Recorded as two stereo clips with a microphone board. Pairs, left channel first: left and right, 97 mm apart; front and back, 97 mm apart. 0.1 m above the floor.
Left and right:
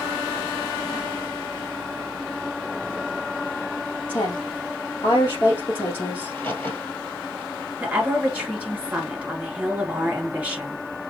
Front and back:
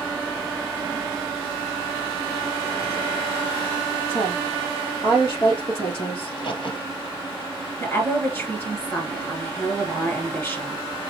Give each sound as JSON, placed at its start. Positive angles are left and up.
{"t": 4.1, "sound": "a woman speaking", "azimuth_deg": 55, "distance_m": 2.5}
{"t": 6.2, "sound": "a crack", "azimuth_deg": 25, "distance_m": 1.7}
{"t": 7.8, "sound": "a woman speaking", "azimuth_deg": -30, "distance_m": 1.8}